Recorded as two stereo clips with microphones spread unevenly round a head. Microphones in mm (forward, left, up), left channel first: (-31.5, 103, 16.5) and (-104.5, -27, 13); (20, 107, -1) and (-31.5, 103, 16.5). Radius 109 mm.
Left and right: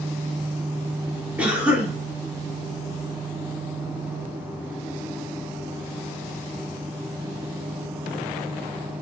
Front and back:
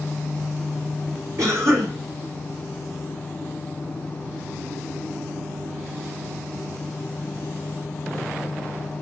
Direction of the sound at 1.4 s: 160° left.